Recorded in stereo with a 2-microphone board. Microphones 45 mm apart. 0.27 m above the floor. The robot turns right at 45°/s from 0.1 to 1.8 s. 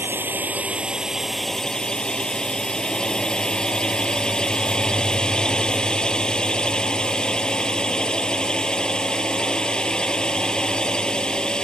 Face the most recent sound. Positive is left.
turn(degrees=20)